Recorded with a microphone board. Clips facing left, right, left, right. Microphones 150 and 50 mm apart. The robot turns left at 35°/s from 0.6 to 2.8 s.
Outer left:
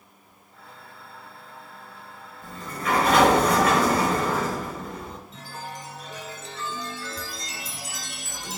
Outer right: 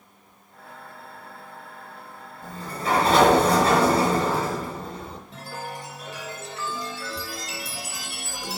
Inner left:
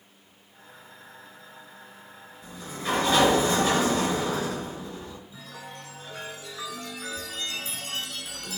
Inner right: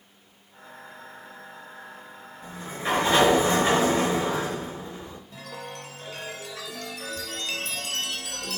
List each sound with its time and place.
2.4 s a sliding door: 45° right (ahead or behind), 4.5 m; by 5.2 s 30° right (ahead or behind), 4.5 m
5.3 s a chime: 75° right (ahead or behind), 3.5 m